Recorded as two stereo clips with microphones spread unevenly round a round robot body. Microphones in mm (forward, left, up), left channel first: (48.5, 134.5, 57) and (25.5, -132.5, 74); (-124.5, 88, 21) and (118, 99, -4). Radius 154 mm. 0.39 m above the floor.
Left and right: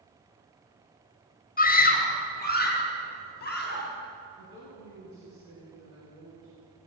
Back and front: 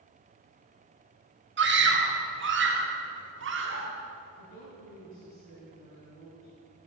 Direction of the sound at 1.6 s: 30° left.